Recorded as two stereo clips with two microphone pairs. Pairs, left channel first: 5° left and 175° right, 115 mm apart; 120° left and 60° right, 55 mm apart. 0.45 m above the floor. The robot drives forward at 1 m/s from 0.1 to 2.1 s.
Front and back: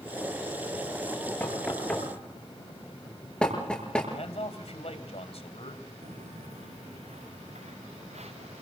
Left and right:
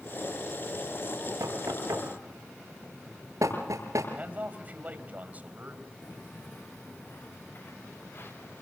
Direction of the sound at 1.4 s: 70° right.